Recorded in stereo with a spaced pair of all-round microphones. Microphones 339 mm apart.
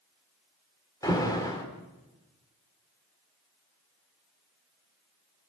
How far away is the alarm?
About 4 m.